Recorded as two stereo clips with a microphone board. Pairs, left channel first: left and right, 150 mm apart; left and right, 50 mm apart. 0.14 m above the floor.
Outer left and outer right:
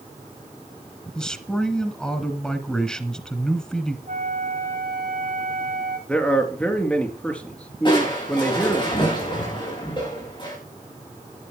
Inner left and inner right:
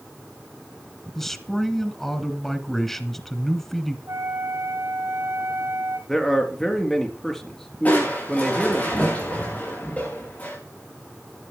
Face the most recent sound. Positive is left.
turn(degrees=35)  # may be behind; listen again after turning